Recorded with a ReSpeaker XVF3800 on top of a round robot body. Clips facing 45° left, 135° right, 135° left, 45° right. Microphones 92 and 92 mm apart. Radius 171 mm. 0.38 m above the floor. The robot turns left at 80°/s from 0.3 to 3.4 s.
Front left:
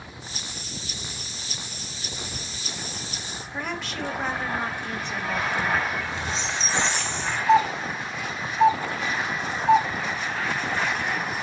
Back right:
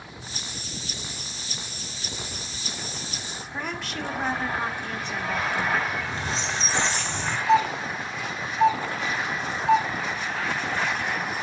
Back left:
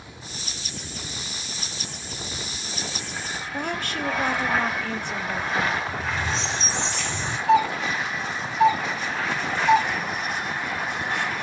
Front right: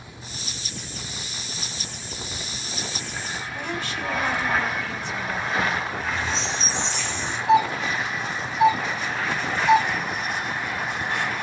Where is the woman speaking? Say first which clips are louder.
Front left 1 dB, back left 3 dB; 135° left, 1.1 m.